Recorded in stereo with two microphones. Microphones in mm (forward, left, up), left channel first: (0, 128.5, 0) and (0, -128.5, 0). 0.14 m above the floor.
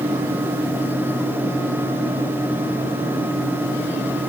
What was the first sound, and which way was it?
Only background noise.